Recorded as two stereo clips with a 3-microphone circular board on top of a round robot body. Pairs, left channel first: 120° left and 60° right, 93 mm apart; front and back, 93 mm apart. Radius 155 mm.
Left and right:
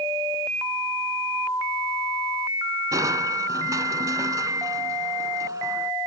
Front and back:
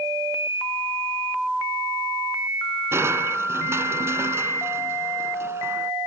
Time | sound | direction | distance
2.9 | crushing | 115° right | ?